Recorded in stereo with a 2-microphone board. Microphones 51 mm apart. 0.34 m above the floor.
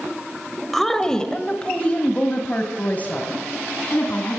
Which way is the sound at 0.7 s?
5° left (ahead or behind).